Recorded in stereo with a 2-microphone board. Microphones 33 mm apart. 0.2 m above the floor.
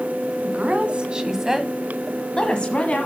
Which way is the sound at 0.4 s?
45° right (ahead or behind).